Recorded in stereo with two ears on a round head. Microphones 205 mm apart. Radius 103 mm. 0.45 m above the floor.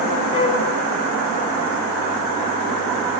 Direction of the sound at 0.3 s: 25° left (ahead or behind).